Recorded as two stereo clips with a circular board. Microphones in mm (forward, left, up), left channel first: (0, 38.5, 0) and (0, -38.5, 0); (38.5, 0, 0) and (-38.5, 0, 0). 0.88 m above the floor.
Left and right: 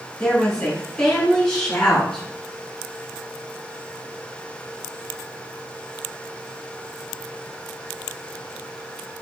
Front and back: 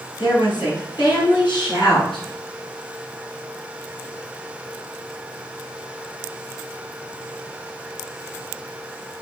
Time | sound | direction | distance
0.2 | a woman speaking | 5° left | 7.5 m